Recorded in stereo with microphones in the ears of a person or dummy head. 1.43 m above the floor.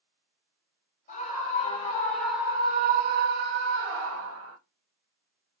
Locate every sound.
1.1 s a scream: 40° left (ahead or behind), 1.0 m; by 4.6 s 80° right, 1.4 m